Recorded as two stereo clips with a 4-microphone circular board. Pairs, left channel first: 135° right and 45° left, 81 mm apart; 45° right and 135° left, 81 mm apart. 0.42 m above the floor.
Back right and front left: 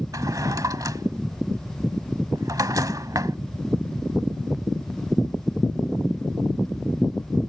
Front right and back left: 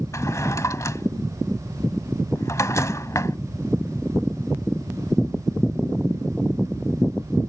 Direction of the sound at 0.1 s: 5° left.